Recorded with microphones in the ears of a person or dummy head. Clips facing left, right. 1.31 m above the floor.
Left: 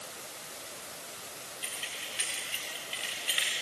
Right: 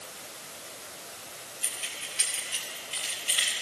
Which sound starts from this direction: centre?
Keys jangling, at 1.6 s.